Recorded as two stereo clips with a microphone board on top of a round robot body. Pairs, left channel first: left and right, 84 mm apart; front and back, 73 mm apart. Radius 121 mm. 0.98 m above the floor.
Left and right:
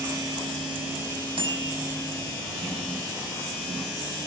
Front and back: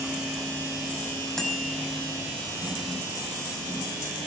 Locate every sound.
1.4 s a bicycle bell: 85° right, 5.5 m